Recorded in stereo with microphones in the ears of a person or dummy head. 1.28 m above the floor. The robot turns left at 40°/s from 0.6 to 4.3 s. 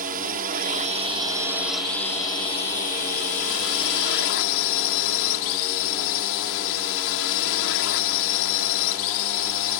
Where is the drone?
130° right; by 9.8 s 80° left.